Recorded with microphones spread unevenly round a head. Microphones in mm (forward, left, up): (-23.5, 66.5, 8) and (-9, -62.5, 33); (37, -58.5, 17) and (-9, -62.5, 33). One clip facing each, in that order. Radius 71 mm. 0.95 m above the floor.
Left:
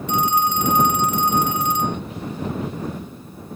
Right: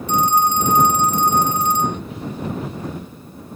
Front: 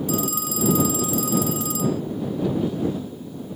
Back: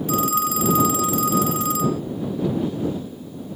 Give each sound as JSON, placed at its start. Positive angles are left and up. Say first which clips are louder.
{"t": 0.1, "sound": "a phone ringing", "louder": "right 3 dB, back 5 dB", "azimuth_deg": -140}